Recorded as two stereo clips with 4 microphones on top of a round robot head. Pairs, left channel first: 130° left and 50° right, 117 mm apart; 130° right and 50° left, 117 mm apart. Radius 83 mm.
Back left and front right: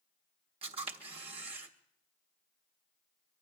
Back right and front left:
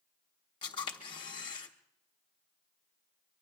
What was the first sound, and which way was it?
A camera shutter, 85° right.